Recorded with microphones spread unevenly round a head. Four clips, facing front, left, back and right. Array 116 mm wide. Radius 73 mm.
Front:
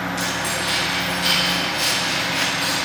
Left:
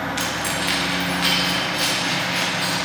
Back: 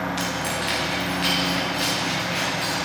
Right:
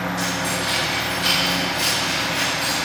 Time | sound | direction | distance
0.2 | keys jangling | 100° left | 1.1 m